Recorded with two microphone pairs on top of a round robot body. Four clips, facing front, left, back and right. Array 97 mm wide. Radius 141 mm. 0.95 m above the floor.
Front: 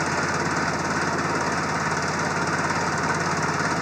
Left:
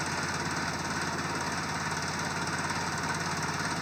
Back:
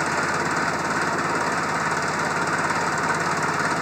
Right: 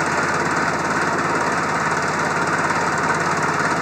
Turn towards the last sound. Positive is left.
turn(degrees=-105)